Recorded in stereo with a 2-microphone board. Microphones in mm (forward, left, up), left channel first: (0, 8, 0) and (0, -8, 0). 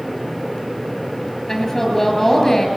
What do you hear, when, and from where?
1.5 s a woman speaking: 30° left (ahead or behind), 7 m